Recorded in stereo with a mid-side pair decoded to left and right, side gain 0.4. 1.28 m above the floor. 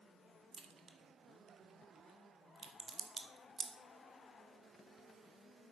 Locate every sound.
0.5 s a crack: 45° right, 1.1 m